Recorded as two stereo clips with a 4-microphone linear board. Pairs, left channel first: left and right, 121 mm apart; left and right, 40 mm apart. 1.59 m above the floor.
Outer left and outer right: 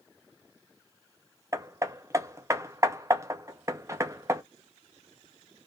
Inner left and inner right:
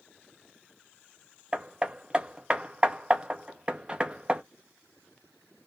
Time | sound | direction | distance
1.5 | hammering | 25° right (ahead or behind) | 0.6 m